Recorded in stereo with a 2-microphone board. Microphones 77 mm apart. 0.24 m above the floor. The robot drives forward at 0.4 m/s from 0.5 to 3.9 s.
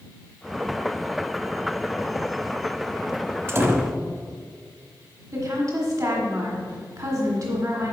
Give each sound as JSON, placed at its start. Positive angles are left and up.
{"t": 3.5, "sound": "a door slam", "side_deg": -35, "distance_m": 0.9}
{"t": 5.3, "sound": "a woman speaking", "side_deg": -45, "distance_m": 1.5}